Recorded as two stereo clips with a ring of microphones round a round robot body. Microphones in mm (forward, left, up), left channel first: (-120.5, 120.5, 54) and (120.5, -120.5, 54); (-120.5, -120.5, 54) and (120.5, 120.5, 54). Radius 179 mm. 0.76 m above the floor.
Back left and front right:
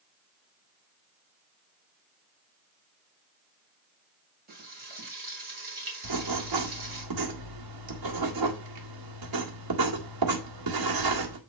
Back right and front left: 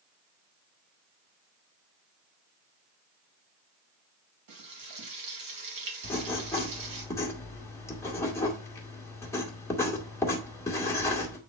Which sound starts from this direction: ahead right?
Writing, at 6.0 s.